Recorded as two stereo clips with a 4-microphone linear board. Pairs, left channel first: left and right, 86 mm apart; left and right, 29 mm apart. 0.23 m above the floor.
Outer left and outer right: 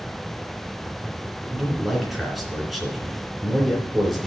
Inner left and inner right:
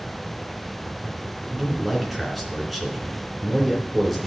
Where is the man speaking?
Centre (ahead or behind), 3 m.